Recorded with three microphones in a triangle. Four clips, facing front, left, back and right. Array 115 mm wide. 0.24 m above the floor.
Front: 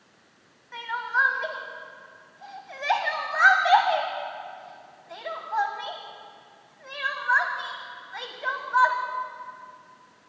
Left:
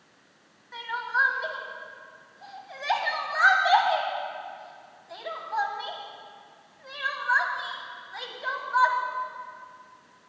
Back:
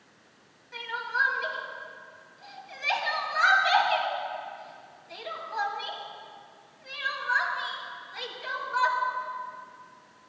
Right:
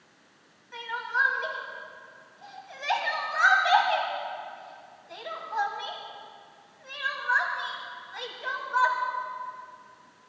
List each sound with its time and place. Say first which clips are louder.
0.7 s crying: left 2 dB, front 4 dB; 20° left, 1.4 m